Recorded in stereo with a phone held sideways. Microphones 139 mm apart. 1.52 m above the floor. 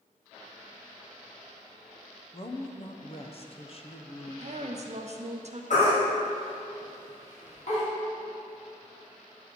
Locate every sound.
2.3 s a woman speaking: 45° left (ahead or behind), 0.7 m
4.3 s a woman speaking: 50° right (ahead or behind), 0.7 m
5.7 s a baby crying: 60° left (ahead or behind), 2.5 m